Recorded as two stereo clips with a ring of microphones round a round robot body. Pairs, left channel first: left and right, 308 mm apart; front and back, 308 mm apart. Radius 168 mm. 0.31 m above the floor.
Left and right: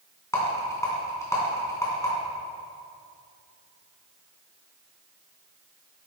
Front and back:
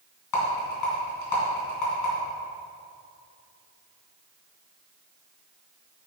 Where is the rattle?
10° left, 3 m.